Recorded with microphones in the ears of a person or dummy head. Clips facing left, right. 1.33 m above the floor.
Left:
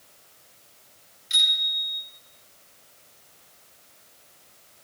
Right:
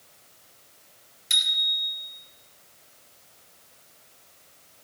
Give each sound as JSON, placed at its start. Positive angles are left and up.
{"t": 1.3, "sound": "a bicycle bell", "side_deg": -70, "distance_m": 4.5}